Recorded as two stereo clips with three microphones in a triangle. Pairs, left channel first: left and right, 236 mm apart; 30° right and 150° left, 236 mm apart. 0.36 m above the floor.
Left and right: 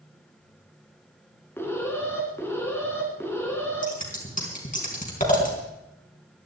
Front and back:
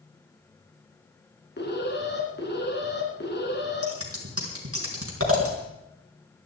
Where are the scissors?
145° left, 4 m.